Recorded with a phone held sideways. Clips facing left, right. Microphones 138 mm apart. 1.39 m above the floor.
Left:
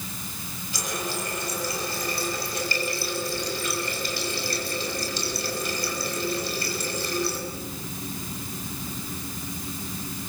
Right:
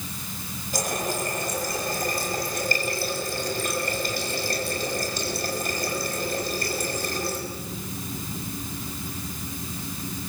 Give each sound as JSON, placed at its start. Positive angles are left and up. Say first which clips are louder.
{"t": 0.7, "sound": "a running tap", "louder": "right 4 dB", "side_deg": -50, "distance_m": 6.5}